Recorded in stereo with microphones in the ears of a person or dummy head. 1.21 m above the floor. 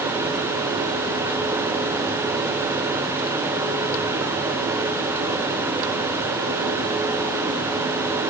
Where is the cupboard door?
I don't hear a cupboard door.